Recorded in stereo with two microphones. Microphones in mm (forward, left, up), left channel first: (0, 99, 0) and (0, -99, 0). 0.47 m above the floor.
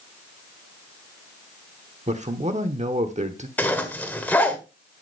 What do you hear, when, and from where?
2.1 s a man speaking: 35° right (ahead or behind), 1.0 m
3.6 s a zipper: 10° left (ahead or behind), 1.5 m